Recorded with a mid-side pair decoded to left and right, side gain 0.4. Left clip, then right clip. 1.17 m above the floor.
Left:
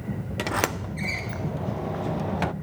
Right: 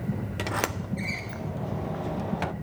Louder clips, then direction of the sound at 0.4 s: Left 4 dB; 25° left.